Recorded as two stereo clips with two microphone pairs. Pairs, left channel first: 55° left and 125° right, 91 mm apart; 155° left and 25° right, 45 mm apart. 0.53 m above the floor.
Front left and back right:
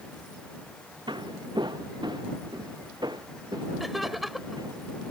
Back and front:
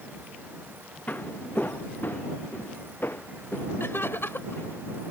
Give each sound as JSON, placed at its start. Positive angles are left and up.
{"t": 1.1, "sound": "footsteps", "azimuth_deg": -160}
{"t": 3.8, "sound": "laughter", "azimuth_deg": 145}